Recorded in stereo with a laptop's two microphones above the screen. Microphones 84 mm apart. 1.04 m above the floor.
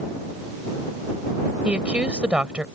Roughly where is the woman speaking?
Centre.